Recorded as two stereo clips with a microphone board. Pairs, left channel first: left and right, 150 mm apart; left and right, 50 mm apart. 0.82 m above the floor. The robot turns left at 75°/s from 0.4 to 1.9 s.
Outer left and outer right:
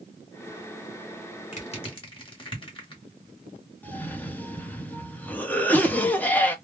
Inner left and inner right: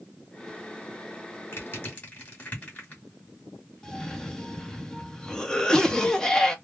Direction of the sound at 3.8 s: 10° left (ahead or behind).